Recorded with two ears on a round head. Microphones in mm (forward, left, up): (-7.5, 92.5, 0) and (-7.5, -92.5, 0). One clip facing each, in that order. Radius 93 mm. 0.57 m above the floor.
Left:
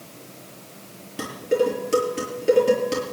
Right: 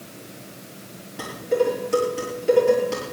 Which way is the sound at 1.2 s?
45° left (ahead or behind).